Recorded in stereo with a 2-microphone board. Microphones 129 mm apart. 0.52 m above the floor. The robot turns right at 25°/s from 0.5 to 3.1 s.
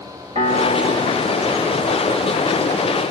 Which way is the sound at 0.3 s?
85° right.